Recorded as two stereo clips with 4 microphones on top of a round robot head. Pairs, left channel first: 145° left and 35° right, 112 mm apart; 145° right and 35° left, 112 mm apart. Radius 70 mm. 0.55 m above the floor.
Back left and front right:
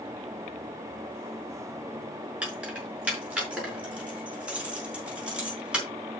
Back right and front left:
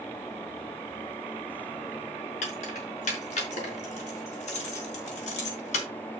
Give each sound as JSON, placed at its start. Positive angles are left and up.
{"t": 2.4, "sound": "keys jangling", "azimuth_deg": -115, "distance_m": 5.5}